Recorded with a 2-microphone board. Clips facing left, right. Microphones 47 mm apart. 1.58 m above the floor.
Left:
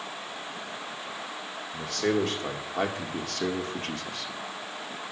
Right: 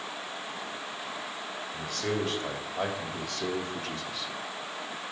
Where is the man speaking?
75° left (ahead or behind), 2.5 m; by 4.3 s 55° left (ahead or behind), 1.3 m.